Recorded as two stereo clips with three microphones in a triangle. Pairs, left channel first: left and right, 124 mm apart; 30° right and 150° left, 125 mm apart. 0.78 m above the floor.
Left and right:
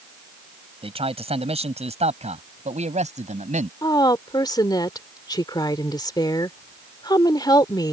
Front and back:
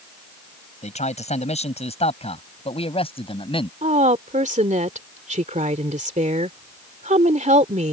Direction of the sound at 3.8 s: 145° left.